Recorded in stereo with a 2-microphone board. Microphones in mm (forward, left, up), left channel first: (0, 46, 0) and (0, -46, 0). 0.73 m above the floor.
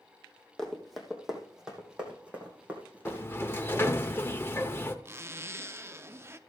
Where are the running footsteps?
5° left (ahead or behind), 1.8 m; by 3.9 s 20° right (ahead or behind), 3.5 m.